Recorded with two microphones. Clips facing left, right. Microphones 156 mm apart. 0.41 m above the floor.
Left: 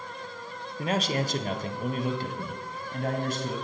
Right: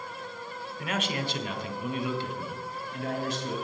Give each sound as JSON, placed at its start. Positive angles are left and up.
{"t": 0.8, "sound": "a man speaking", "side_deg": 35, "distance_m": 0.9}